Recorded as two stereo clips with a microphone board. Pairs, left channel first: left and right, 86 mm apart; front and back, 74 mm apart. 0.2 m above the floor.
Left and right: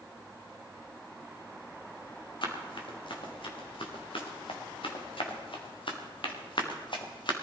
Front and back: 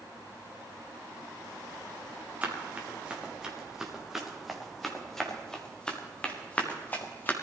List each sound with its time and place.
2.4 s running footsteps: 110° left, 4 m; by 7.3 s 65° left, 3 m